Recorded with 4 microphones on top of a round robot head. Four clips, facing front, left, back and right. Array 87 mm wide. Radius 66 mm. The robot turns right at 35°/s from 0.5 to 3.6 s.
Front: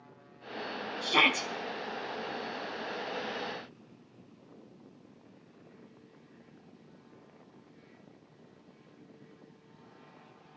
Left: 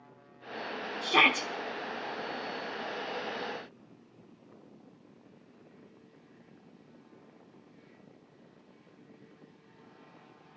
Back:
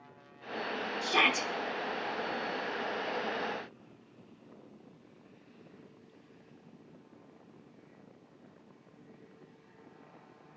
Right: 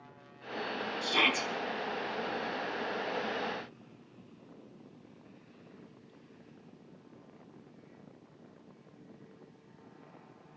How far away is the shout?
About 1.2 m.